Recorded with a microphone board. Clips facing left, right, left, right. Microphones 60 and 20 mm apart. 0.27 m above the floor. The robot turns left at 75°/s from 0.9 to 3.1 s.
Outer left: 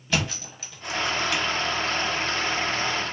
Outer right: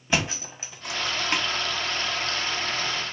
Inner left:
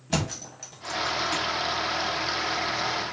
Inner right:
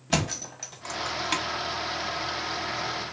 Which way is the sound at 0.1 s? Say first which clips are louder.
Outer right 1 dB, inner right 2 dB; 25° right (ahead or behind).